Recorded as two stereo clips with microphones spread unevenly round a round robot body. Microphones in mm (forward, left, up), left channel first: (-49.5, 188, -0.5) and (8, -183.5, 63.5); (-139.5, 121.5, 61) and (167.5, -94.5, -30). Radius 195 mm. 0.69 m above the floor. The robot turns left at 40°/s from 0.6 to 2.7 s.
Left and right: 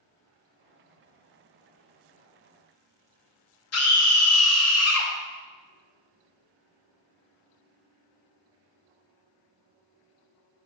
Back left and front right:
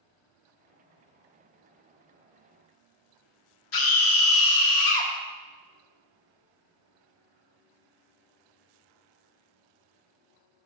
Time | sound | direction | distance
3.7 | a scream | 115° left | 0.8 m